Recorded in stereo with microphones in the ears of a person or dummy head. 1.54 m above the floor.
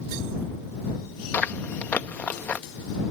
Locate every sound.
1.3 s chewing: 10° left (ahead or behind)